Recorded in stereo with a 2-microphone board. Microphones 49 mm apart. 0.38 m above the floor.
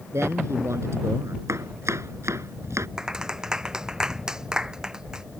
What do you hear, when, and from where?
0.1 s a man speaking: 75° right (ahead or behind)
1.5 s chopping: 80° right
3.0 s a clap: 15° right (ahead or behind)